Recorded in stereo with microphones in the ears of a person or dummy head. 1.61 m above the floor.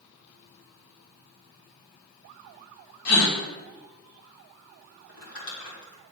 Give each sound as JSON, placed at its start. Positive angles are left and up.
{"t": 3.0, "sound": "a gasp", "side_deg": 80, "distance_m": 1.5}
{"t": 5.1, "sound": "crumpling", "side_deg": 75, "distance_m": 3.5}